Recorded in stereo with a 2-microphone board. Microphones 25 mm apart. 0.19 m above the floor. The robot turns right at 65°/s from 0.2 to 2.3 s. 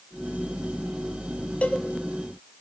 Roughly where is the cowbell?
Left.